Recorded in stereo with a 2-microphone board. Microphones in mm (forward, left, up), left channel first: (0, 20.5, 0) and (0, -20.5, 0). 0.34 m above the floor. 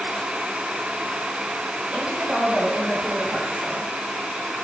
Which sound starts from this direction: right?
A woman speaking, at 1.9 s.